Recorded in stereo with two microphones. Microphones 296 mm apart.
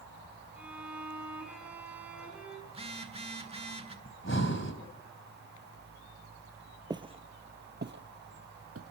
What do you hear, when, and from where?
0.6 s a violin: 5° right (ahead or behind), 6 m
2.7 s a phone buzzing: 20° right (ahead or behind), 1.6 m
4.0 s breathing: 40° left (ahead or behind), 2.5 m
6.9 s footsteps: 15° right (ahead or behind), 1.1 m; by 8.9 s 55° right (ahead or behind), 1.6 m